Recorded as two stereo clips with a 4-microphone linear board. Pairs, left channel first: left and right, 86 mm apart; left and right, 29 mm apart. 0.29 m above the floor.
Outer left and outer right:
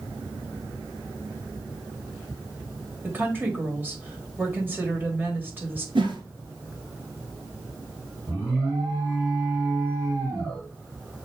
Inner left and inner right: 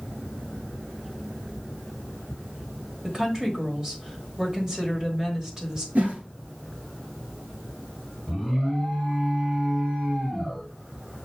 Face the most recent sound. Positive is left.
turn(degrees=-35)  # may be behind; listen again after turning